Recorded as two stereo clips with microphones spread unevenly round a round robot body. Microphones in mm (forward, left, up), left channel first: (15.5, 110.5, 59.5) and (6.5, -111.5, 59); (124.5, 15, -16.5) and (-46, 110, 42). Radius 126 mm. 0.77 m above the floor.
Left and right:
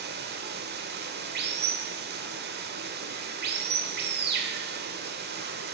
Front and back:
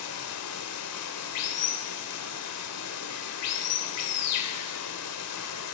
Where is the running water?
45° right, 1.0 m.